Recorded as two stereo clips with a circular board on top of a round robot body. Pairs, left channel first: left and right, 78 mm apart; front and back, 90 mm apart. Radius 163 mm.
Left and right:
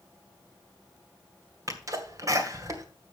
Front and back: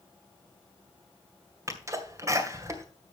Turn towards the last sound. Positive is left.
turn(degrees=-130)